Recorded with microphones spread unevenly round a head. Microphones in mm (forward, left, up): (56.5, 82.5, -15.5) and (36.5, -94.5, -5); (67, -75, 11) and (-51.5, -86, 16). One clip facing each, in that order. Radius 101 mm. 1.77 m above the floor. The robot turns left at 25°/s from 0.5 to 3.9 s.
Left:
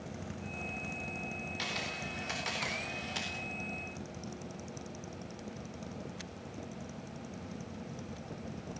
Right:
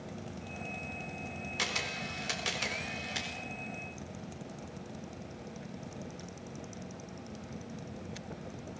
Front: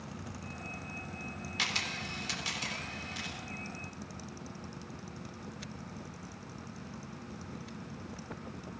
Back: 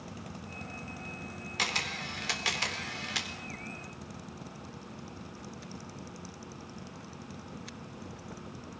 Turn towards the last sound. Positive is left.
turn(degrees=170)